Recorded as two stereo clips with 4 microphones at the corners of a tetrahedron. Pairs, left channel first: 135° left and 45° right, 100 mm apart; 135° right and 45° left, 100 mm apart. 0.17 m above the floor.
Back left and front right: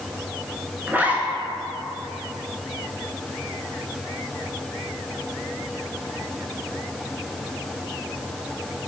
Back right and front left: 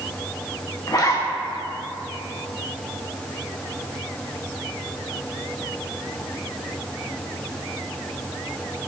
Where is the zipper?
105° right, 0.7 m.